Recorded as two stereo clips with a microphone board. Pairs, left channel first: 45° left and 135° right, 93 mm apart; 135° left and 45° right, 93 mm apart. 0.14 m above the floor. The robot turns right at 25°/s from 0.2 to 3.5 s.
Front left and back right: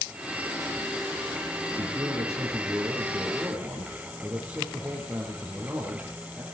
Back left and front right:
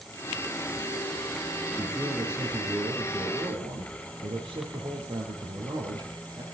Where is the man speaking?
105° right, 4.5 m; by 6.4 s 60° right, 4.5 m.